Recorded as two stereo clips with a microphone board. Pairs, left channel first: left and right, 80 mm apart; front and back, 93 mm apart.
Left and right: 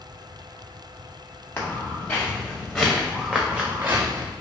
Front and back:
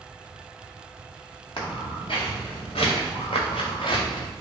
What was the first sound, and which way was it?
Footsteps, 30° left.